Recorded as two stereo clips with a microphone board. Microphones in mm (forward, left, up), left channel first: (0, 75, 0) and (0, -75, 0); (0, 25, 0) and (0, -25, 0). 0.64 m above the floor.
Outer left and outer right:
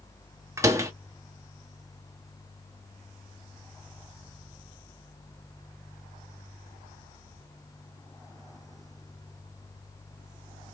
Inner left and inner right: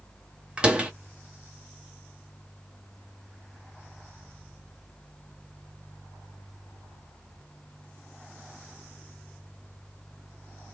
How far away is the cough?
No cough in this recording.